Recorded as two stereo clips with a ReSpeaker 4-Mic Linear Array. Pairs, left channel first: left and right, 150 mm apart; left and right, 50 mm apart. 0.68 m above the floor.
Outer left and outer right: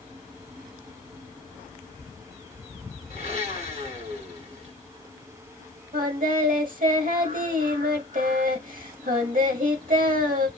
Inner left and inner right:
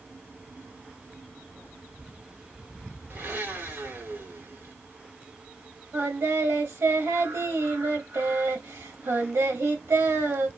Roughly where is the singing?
Right.